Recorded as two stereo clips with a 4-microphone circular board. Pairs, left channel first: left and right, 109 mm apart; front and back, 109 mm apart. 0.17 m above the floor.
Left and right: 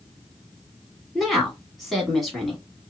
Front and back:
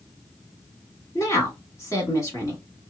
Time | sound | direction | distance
1.1 | a woman speaking | straight ahead | 1.1 m